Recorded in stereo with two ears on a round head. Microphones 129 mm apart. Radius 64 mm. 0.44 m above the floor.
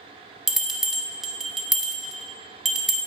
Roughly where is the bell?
Centre.